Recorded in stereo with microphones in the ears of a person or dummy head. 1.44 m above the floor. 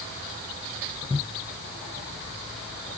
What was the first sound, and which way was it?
Only background noise.